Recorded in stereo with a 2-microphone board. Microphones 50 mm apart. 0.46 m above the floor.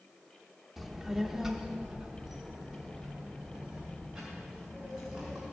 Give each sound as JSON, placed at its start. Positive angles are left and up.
{"t": 0.8, "sound": "a child speaking", "side_deg": 0, "distance_m": 0.9}